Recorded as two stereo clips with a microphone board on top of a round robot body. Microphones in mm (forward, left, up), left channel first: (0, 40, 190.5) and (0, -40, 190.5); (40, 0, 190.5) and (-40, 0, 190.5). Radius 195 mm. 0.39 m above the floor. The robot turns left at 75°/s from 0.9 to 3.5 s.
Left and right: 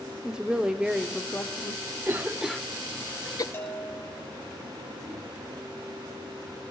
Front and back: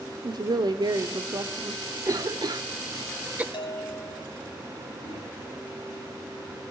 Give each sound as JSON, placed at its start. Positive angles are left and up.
{"t": 0.2, "sound": "a woman speaking", "azimuth_deg": -170, "distance_m": 1.3}
{"t": 2.0, "sound": "a cough", "azimuth_deg": -145, "distance_m": 1.0}
{"t": 3.5, "sound": "a bell", "azimuth_deg": 25, "distance_m": 4.5}
{"t": 5.0, "sound": "a microwave", "azimuth_deg": 5, "distance_m": 7.5}